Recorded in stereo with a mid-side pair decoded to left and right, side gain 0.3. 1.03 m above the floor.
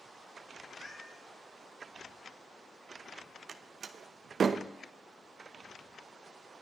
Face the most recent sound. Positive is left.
turn(degrees=-65)